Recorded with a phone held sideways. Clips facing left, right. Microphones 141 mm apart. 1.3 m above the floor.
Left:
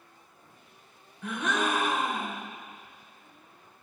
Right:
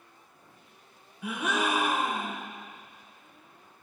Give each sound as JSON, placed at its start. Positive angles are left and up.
{"t": 1.2, "sound": "a gasp", "side_deg": -10, "distance_m": 1.3}